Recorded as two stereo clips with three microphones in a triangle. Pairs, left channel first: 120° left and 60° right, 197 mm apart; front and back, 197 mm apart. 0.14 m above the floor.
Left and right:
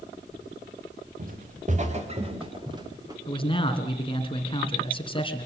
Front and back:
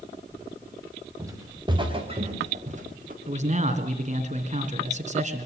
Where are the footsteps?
105° right, 3.5 m; by 3.2 s 135° right, 4 m.